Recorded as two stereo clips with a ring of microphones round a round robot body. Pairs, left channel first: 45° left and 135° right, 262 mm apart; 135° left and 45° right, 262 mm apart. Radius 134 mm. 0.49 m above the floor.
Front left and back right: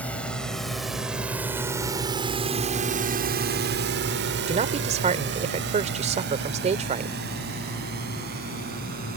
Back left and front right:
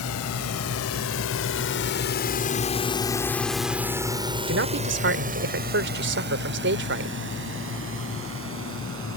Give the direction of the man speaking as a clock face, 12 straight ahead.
3 o'clock.